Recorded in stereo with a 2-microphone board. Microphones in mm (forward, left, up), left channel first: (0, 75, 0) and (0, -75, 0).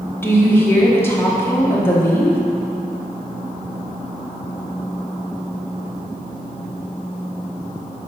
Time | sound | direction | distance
0.2 | a woman speaking | 15° left (ahead or behind) | 1.4 m